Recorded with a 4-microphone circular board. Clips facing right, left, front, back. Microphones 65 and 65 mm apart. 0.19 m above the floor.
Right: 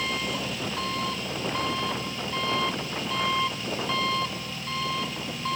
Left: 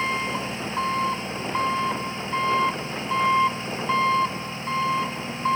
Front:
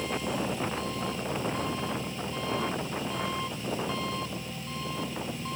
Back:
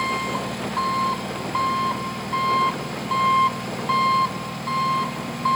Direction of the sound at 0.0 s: 150° left.